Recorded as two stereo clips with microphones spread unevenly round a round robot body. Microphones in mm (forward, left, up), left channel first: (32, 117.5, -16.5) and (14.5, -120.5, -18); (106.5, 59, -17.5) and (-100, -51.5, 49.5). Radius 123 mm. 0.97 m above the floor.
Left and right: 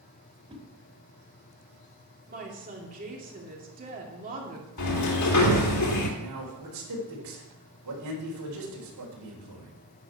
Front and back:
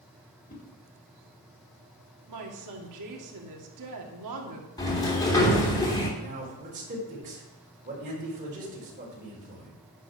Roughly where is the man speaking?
Right.